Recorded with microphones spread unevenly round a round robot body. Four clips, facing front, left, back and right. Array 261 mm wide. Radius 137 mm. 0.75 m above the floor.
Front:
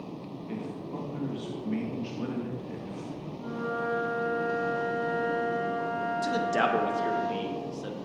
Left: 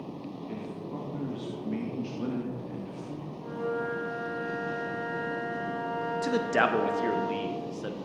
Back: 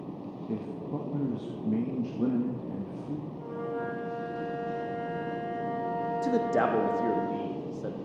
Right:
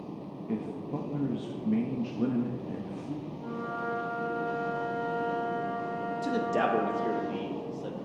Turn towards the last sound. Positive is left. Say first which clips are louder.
# left 2 dB, back 1 dB
turn(degrees=175)